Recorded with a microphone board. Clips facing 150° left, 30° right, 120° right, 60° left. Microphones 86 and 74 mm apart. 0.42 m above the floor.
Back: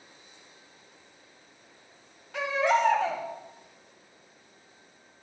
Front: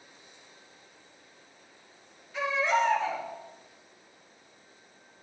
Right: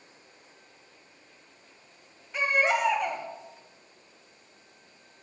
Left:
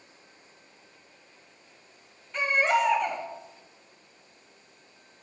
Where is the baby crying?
155° left, 1.7 m.